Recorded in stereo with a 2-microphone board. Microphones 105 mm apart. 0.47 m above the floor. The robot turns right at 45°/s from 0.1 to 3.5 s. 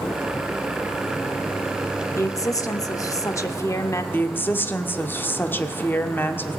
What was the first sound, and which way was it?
A woman speaking, 60° left.